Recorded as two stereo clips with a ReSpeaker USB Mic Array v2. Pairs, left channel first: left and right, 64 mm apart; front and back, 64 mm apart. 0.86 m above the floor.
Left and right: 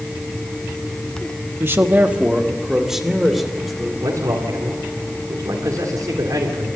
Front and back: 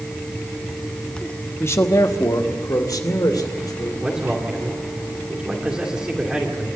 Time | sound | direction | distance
1.6 | a man speaking | 45° right | 0.9 m
4.0 | a man speaking | 105° right | 2.5 m